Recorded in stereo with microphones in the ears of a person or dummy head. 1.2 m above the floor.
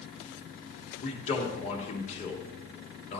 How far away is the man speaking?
About 3 m.